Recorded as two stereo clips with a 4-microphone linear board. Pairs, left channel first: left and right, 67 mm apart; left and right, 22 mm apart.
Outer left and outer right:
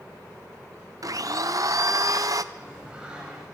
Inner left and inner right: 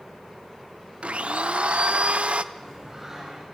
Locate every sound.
1.0 s a blender: 60° right (ahead or behind), 0.6 m
2.5 s singing: 15° right (ahead or behind), 5 m